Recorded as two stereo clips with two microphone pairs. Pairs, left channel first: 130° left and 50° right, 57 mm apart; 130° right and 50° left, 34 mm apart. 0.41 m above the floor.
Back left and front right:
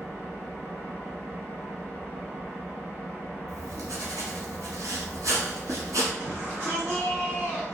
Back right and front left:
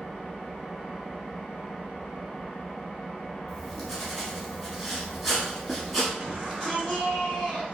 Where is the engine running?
80° right, 1.6 m.